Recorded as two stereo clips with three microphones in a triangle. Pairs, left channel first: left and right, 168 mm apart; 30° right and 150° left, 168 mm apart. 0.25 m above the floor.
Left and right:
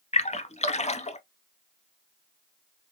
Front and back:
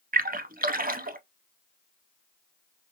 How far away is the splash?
About 0.6 m.